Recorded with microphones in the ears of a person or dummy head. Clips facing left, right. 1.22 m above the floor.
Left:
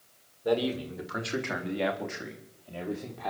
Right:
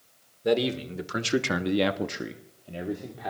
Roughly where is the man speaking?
Right.